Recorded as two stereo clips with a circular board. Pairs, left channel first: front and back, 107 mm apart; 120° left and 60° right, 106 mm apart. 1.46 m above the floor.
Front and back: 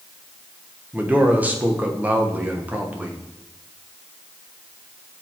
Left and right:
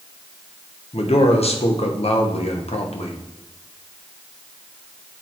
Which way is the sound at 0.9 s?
105° left.